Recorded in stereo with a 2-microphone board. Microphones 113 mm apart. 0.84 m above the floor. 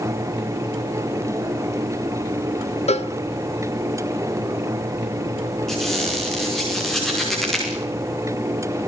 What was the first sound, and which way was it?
A cowbell, 70° left (ahead or behind).